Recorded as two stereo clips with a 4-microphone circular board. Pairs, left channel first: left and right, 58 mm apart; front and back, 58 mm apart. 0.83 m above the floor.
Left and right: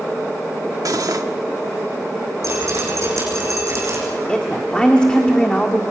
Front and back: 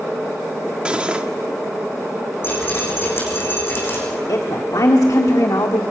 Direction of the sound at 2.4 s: 50° right.